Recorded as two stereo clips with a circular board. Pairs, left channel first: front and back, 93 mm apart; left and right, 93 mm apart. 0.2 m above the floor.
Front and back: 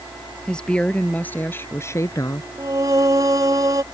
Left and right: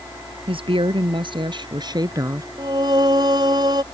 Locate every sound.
0.5 s a woman speaking: 80° right; by 2.5 s 40° right
2.6 s singing: 130° right